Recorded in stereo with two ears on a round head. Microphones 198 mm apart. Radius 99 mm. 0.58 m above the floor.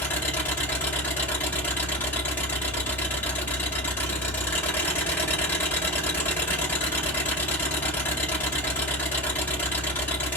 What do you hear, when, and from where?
0.0 s an engine running: 10° left (ahead or behind), 2 m